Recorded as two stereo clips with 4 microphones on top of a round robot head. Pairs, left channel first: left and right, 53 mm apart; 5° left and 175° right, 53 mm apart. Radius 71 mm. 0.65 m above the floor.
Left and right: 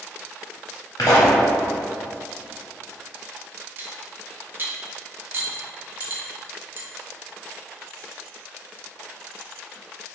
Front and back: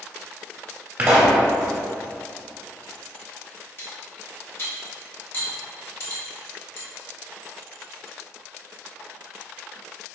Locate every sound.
1.0 s a pop: 130° left, 0.6 m
3.8 s cutlery clinking: 40° right, 0.9 m